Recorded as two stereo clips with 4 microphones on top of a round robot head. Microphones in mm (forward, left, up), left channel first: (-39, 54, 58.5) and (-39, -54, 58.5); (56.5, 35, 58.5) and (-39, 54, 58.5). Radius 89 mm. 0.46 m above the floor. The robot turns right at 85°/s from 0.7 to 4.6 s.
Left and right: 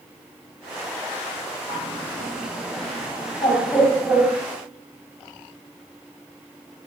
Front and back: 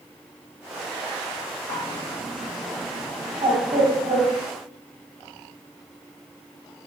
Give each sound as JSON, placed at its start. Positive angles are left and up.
{"t": 1.7, "sound": "a bird", "azimuth_deg": -15, "distance_m": 3.0}